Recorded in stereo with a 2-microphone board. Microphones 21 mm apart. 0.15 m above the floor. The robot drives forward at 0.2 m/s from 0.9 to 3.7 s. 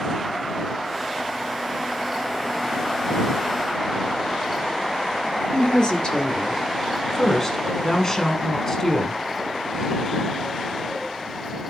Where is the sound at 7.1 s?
25° left (ahead or behind), 1.2 m.